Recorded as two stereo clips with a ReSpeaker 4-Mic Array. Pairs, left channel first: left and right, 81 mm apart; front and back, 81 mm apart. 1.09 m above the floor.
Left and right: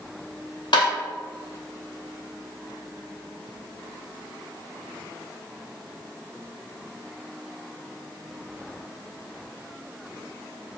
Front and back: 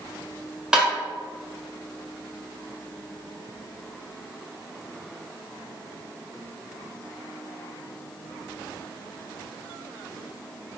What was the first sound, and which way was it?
Tapping, 100° left.